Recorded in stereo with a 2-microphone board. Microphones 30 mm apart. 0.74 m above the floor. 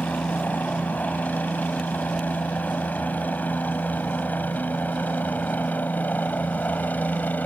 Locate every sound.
0.0 s a helicopter: 70° left (ahead or behind)